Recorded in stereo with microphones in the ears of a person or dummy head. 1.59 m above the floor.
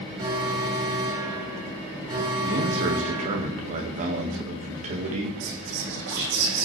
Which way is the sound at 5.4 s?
70° right (ahead or behind).